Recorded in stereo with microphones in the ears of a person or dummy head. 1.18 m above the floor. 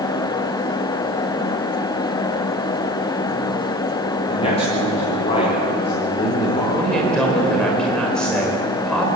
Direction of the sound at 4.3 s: 40° left (ahead or behind).